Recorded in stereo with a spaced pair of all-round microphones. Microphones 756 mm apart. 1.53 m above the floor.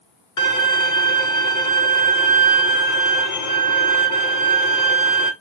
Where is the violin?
25° left (ahead or behind), 0.7 m.